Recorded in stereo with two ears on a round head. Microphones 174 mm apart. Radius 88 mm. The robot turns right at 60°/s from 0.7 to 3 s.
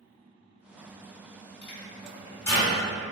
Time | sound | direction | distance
1.6 | a microwave | 60° left (ahead or behind) | 1.6 m